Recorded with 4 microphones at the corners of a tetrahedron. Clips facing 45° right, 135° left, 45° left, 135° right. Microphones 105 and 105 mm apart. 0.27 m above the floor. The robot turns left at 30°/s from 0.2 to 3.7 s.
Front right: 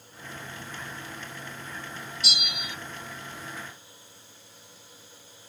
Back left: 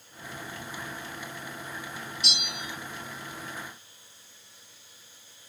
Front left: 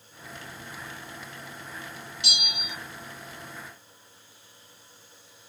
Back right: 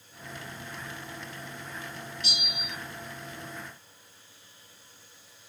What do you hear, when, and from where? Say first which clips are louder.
2.2 s a bell: front right 3 dB, front left 4 dB; 40° left, 0.6 m; by 2.8 s 25° left, 0.6 m